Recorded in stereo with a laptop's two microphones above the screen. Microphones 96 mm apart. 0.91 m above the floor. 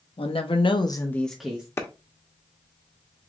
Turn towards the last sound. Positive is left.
turn(degrees=25)  # may be behind; listen again after turning